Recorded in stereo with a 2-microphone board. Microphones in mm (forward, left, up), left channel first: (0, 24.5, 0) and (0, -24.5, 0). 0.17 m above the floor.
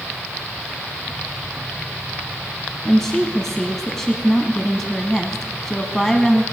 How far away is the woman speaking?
About 1.2 m.